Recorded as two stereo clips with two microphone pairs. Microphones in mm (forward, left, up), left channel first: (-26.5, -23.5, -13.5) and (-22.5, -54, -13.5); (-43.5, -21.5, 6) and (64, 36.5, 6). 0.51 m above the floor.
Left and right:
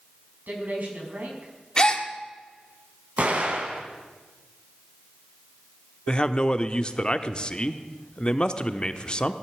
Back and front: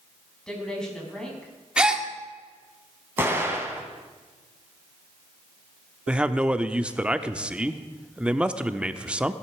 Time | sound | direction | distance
0.5 | a woman speaking | 70° right | 4.5 m
1.8 | a gasp | 100° left | 1.5 m
3.2 | an explosion | 45° right | 2.5 m
6.1 | a man speaking | 100° left | 0.8 m